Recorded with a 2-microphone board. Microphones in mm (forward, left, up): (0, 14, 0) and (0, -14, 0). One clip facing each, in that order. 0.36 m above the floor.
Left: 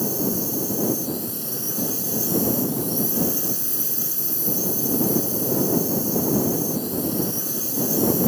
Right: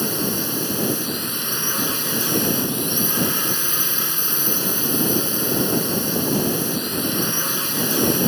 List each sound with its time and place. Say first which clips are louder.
0.0 s a drone: right 1 dB; 60° right (ahead or behind)